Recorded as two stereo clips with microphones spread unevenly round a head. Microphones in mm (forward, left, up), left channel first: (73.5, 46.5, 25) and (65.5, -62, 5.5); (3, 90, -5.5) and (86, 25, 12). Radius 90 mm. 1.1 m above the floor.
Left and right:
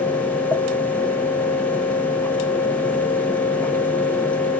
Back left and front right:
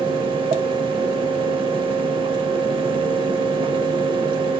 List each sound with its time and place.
0.0 s a fan: 5° left, 0.9 m